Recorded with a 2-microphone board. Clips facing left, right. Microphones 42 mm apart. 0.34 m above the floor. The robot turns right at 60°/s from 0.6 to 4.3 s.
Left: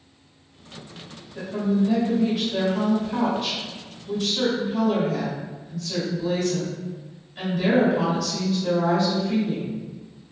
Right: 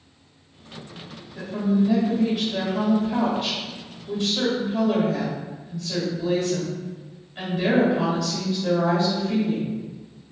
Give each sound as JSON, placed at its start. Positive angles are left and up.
{"t": 1.4, "sound": "a woman speaking", "side_deg": 25, "distance_m": 1.6}